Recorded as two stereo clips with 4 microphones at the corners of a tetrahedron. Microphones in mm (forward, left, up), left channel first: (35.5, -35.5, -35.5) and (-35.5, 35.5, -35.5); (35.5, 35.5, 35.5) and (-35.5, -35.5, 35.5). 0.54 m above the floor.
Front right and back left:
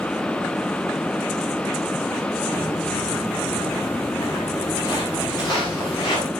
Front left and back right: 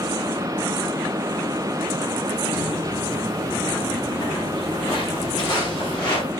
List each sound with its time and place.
2.5 s footsteps: straight ahead, 6.5 m